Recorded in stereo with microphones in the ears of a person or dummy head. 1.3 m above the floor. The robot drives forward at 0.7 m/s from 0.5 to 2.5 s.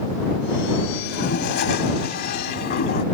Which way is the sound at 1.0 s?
60° left (ahead or behind).